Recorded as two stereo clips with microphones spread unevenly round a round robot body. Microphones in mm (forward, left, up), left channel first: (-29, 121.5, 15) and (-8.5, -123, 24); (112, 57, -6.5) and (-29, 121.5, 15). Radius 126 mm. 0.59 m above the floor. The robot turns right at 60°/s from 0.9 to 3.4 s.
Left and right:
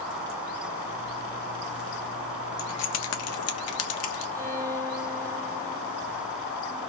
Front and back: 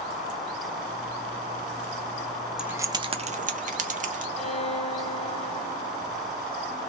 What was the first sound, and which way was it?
Keys jangling, 65° left.